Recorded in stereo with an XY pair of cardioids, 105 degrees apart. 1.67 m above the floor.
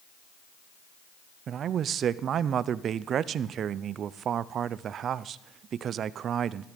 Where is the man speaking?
60° right, 0.6 m.